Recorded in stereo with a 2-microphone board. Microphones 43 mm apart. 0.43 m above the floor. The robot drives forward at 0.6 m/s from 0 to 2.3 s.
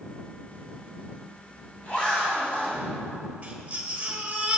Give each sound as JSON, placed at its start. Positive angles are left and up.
{"t": 0.5, "sound": "a zipper", "side_deg": 40, "distance_m": 2.0}
{"t": 3.4, "sound": "a baby crying", "side_deg": -30, "distance_m": 1.2}